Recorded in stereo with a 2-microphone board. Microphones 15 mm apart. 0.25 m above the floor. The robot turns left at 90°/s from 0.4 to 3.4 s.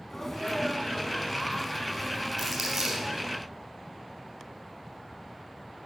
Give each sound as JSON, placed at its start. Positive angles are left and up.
{"t": 0.1, "sound": "a sneeze", "azimuth_deg": 150, "distance_m": 1.7}
{"t": 2.4, "sound": "crumpling", "side_deg": 5, "distance_m": 3.5}